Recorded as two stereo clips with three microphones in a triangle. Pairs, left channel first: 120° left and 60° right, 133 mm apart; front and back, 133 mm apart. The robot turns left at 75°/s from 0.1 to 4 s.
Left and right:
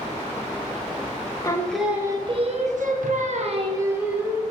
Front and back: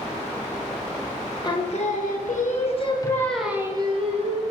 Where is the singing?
55° left, 1.1 m; by 4.4 s 135° right, 1.1 m.